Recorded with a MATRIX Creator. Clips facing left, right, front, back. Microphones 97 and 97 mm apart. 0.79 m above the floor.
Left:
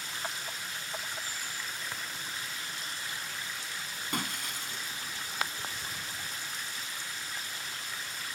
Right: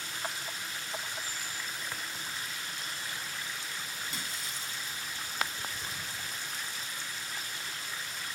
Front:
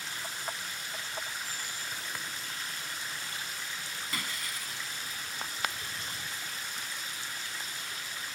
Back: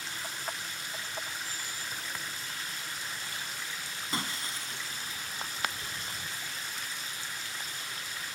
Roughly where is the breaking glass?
Behind left.